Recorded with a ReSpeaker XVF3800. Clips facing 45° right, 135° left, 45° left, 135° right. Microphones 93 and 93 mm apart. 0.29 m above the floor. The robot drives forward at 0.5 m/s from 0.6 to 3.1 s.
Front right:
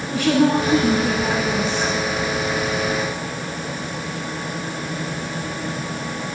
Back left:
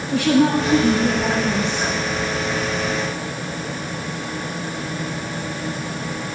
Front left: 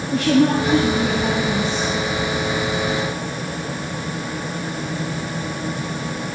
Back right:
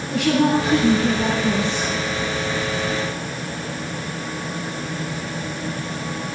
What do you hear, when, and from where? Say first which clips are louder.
0.1 s a woman speaking: back left 1 dB, front left 2 dB; 130° right, 4 m; by 1.9 s 135° right, 4.5 m